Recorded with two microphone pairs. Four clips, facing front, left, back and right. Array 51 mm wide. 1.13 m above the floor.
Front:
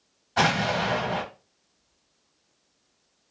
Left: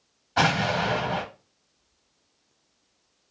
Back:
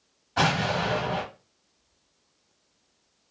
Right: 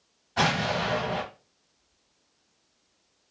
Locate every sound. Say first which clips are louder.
0.4 s an explosion: left 3 dB, front 1 dB; 70° left, 1.1 m